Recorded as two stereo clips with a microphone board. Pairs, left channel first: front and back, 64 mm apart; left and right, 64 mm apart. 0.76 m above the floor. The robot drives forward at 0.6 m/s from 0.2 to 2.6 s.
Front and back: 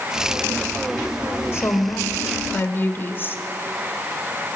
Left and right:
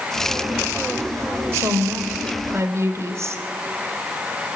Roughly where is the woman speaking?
Ahead right.